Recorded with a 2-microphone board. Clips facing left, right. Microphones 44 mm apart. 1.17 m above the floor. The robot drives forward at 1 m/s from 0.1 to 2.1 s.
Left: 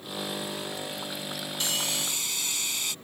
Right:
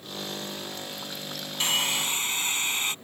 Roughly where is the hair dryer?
Right.